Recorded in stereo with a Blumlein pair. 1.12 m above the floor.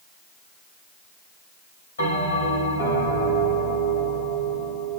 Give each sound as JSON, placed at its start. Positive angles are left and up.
{"t": 2.0, "sound": "a bell", "azimuth_deg": 70, "distance_m": 1.8}